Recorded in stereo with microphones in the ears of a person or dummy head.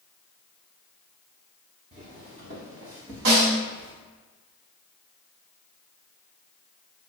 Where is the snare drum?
70° right (ahead or behind), 2.5 m.